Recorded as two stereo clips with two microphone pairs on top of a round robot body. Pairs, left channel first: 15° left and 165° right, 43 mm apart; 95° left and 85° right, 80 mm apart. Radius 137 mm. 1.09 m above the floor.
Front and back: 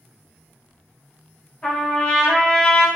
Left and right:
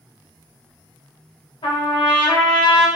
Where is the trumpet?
80° left, 0.9 m.